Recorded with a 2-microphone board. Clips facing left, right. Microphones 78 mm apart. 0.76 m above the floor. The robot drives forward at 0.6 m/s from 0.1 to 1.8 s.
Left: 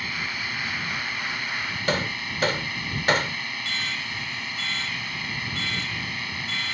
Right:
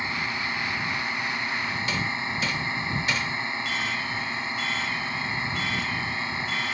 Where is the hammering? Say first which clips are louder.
Left 2 dB; 60° left (ahead or behind).